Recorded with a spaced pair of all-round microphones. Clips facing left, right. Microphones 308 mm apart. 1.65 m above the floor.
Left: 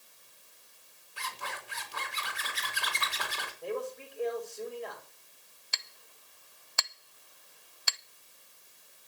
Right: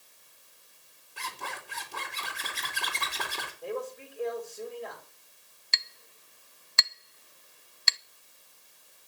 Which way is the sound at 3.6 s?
Centre (ahead or behind).